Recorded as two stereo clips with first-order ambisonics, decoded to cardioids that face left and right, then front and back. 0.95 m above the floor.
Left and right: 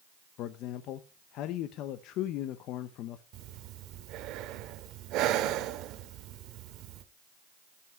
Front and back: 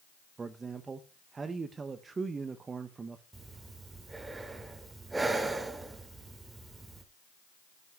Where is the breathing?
100° right, 0.8 m.